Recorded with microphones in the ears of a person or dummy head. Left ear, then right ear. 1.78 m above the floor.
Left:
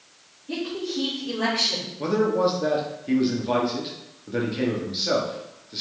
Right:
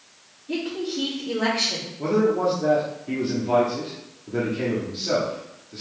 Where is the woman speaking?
60° left (ahead or behind), 3 m.